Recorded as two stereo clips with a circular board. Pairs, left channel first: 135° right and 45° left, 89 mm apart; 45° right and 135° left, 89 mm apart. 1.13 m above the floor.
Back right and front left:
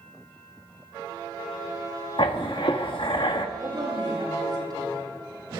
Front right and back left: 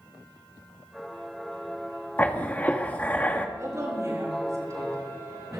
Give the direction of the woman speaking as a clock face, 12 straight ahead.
9 o'clock.